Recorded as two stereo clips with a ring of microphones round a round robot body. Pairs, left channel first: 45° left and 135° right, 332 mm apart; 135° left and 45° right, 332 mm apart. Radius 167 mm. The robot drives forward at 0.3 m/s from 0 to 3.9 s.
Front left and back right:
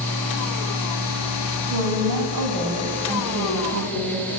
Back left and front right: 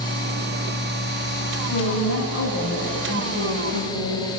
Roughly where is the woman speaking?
Behind.